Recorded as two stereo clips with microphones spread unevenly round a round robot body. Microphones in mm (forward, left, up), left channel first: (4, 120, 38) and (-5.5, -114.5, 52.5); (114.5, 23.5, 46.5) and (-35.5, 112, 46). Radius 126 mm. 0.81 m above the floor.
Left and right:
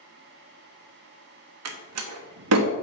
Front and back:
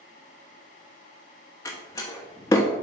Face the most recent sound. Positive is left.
turn(degrees=-105)